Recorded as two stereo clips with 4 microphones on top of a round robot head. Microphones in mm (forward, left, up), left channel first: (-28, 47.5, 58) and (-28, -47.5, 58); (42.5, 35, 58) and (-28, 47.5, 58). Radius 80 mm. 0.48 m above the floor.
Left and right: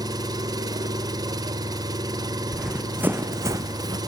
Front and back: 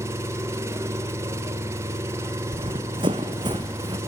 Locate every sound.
0.0 s an engine running: 135° right, 1.1 m
2.5 s running footsteps: straight behind, 1.3 m; by 4.0 s 140° right, 1.7 m